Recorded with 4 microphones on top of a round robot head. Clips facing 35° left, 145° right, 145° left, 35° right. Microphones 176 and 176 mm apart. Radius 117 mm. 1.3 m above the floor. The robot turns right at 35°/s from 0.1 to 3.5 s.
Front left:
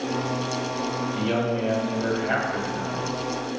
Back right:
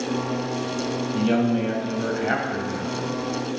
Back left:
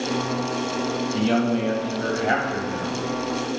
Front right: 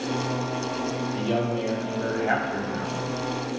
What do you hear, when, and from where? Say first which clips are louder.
1.1 s a man speaking: back right 5 dB, back left 6 dB; 160° left, 2 m; by 3.0 s 135° right, 2 m